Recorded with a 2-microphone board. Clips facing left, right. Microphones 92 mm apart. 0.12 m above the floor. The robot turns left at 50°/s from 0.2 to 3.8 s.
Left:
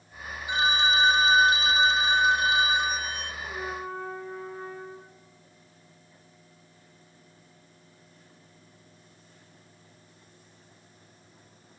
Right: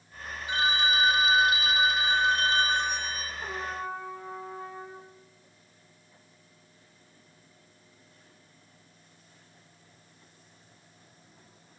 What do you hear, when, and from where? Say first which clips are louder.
0.5 s a phone ringing: left 2 dB; 20° left (ahead or behind), 1.0 m; by 3.3 s centre (ahead or behind), 1.0 m
3.4 s a trumpet: right 1 dB; 80° right, 5.5 m; by 5.0 s 75° right (ahead or behind), 5.5 m